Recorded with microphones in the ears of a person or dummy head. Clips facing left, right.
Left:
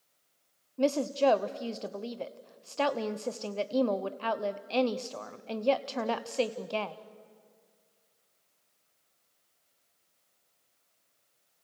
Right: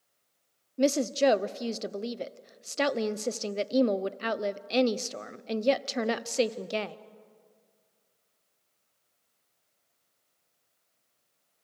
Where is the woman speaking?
20° right (ahead or behind), 0.7 m.